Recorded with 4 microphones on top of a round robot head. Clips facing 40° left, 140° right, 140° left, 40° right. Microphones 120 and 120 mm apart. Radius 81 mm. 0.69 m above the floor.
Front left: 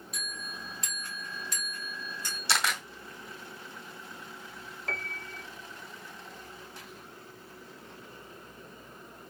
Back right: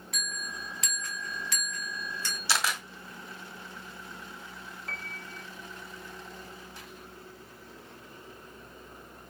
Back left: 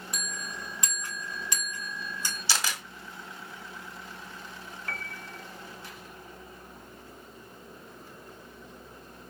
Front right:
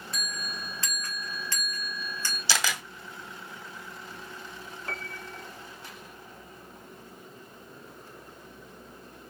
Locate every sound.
0.1 s a bell: 150° right, 3 m
2.5 s a camera shutter: 50° right, 1.9 m
4.9 s a piano: 25° left, 1.0 m